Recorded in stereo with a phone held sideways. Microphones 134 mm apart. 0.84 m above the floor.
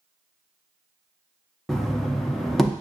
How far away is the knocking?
About 0.5 m.